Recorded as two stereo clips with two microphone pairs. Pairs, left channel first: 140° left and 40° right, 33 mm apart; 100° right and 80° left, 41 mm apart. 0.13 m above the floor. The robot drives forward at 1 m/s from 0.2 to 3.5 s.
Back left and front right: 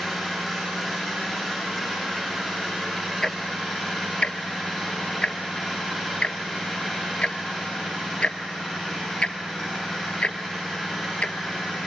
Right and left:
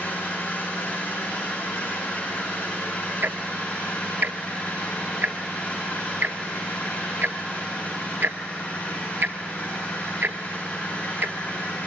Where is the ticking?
70° left, 0.8 m; by 11.3 s 95° left, 0.8 m.